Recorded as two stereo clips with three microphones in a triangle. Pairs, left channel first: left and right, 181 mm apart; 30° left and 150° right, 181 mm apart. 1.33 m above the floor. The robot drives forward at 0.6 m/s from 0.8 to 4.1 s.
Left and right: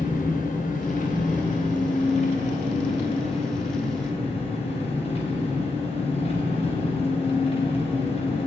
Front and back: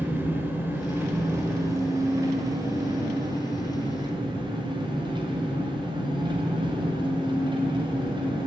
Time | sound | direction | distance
0.0 | an engine running | 130° left | 4.5 m